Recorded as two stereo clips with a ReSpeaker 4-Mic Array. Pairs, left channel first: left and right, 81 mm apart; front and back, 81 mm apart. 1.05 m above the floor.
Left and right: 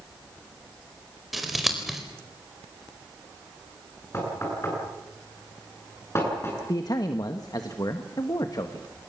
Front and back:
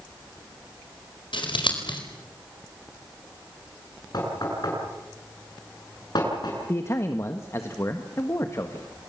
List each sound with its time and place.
1.3 s scissors: 5° right, 4.5 m
4.1 s knocking: 35° left, 9 m
6.7 s a man speaking: 55° left, 1.5 m